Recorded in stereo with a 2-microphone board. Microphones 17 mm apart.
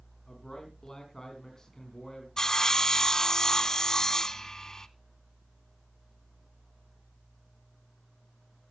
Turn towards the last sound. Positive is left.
turn(degrees=35)  # may be behind; listen again after turning